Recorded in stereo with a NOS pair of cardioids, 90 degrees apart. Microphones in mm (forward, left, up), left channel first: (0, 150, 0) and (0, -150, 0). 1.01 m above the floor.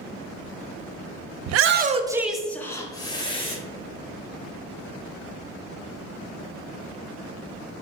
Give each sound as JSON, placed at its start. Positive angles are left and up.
{"t": 1.5, "sound": "a shout", "azimuth_deg": -65, "distance_m": 0.5}